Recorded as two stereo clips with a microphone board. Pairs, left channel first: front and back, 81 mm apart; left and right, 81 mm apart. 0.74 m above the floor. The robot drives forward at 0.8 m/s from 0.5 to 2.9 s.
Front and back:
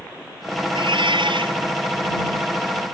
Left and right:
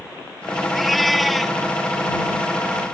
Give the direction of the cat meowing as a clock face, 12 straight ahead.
6 o'clock.